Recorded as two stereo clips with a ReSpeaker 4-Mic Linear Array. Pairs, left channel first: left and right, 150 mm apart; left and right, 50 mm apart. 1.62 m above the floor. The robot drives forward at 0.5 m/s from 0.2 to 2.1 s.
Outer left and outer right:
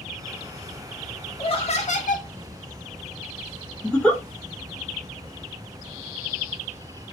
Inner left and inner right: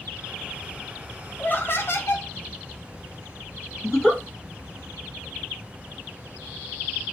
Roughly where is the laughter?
Left.